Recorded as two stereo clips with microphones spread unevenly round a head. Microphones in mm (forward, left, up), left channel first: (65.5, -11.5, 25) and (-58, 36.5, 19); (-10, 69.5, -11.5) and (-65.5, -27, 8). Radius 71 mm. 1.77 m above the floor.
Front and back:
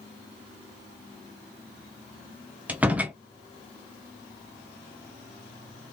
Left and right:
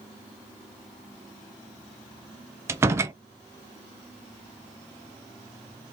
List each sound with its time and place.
2.7 s a door slam: 125° right, 0.6 m